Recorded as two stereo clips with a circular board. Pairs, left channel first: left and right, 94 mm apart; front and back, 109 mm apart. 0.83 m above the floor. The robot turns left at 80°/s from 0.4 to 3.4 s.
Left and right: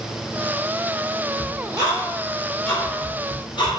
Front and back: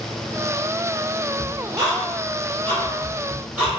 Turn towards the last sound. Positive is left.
turn(degrees=105)